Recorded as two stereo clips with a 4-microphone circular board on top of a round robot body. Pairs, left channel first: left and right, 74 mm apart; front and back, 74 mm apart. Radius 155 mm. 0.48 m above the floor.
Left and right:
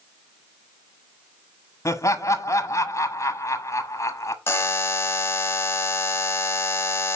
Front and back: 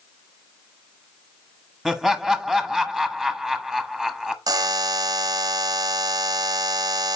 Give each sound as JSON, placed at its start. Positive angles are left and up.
{"t": 1.9, "sound": "laughter", "azimuth_deg": 100, "distance_m": 1.3}
{"t": 4.5, "sound": "a buzzer", "azimuth_deg": 150, "distance_m": 0.7}